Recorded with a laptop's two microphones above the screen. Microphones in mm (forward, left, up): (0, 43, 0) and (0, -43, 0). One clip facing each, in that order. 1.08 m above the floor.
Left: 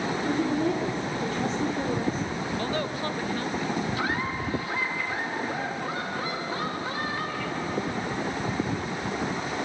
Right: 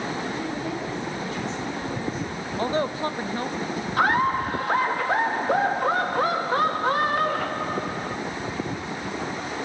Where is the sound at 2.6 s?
25° right (ahead or behind), 0.9 m.